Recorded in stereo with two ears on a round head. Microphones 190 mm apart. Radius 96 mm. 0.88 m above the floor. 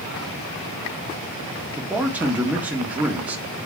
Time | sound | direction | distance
1.8 | a man speaking | 10° right (ahead or behind) | 1.6 m